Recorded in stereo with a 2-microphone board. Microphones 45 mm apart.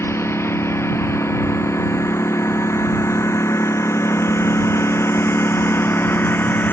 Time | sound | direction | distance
0.0 | a lawn mower | 70° left (ahead or behind) | ?